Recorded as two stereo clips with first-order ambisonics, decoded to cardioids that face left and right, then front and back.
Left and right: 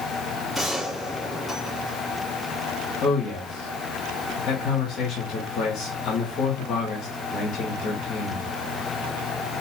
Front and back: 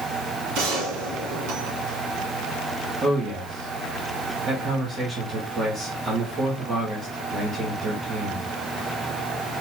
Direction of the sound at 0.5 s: Straight behind.